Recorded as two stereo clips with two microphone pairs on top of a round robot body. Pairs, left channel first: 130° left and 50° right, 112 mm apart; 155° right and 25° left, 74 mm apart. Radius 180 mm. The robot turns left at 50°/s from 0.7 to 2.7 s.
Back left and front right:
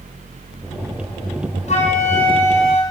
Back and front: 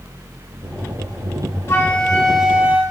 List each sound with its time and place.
1.7 s a flute: 150° left, 4.5 m; by 2.8 s 100° left, 4.5 m